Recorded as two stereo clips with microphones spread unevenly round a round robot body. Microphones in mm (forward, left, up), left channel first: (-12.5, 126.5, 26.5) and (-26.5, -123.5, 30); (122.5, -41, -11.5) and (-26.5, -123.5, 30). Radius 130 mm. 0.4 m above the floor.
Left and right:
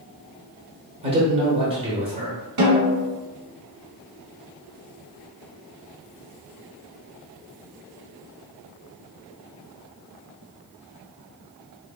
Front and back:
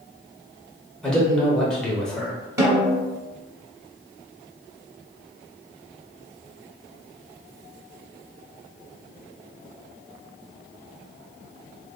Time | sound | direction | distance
1.0 | a man speaking | 35° right | 1.0 m
2.6 | a snare drum | 80° right | 1.6 m